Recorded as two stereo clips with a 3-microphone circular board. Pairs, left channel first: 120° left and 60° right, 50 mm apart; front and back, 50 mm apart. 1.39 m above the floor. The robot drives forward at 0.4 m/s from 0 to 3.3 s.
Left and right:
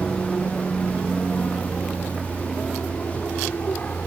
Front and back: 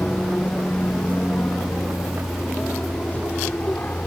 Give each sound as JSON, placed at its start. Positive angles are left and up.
{"t": 0.0, "sound": "an aircraft", "azimuth_deg": 45}